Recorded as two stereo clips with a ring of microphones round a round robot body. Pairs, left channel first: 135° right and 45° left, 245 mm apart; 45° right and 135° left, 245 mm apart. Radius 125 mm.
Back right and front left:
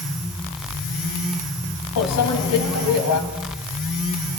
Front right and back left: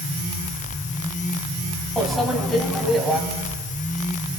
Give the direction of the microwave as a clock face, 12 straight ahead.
4 o'clock.